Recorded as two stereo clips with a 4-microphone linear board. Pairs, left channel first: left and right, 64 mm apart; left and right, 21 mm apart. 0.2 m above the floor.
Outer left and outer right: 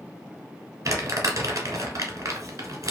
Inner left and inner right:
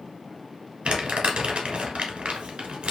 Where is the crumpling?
65° right (ahead or behind), 0.8 m.